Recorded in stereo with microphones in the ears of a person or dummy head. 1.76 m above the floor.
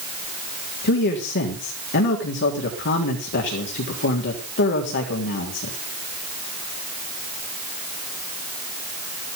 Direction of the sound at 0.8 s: 55° left (ahead or behind).